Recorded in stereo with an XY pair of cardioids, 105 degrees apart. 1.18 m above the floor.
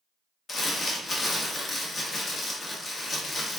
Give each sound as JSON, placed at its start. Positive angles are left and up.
{"t": 0.5, "sound": "crumpling", "azimuth_deg": 40, "distance_m": 0.7}